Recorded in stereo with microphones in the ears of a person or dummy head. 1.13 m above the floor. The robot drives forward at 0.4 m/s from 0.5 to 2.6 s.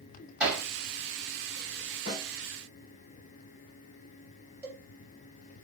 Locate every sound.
0.4 s hammering: 5° right (ahead or behind), 1.3 m; by 0.6 s 10° right (ahead or behind), 1.2 m
2.1 s a snare drum: 45° left (ahead or behind), 1.4 m; by 2.3 s 40° left (ahead or behind), 1.5 m
4.6 s a cowbell: 10° right (ahead or behind), 0.7 m